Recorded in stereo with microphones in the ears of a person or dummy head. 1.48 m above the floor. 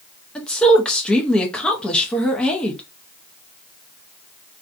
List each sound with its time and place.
0.3 s a woman speaking: 5° left (ahead or behind), 0.7 m